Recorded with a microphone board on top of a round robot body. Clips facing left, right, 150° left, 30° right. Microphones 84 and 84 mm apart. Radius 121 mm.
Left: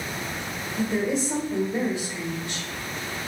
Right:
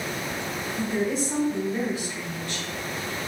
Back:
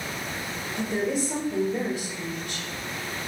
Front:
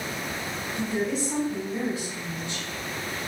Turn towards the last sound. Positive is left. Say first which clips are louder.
# left 2 dB, back 1 dB
turn(degrees=145)